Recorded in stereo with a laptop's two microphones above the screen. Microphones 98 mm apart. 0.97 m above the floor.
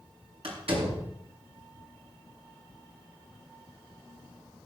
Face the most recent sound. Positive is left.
turn(degrees=-75)  # may be behind; listen again after turning